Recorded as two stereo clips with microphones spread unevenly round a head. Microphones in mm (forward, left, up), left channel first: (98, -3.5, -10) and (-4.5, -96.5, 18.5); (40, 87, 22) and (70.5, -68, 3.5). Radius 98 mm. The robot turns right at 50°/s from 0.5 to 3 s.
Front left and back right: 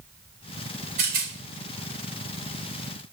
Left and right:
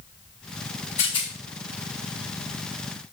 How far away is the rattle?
About 2 m.